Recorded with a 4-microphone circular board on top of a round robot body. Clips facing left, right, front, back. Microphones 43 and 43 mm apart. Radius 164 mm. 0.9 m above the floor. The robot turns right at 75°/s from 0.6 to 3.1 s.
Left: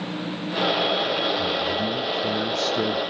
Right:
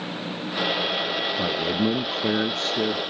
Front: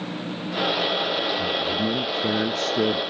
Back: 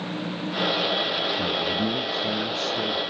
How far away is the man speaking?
About 0.7 m.